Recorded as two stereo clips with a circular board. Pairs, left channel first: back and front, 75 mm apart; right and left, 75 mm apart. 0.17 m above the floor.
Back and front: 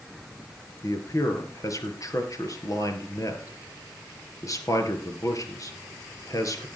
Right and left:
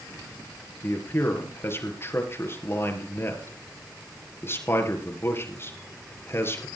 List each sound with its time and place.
0.8 s a man speaking: 145° right, 3.5 m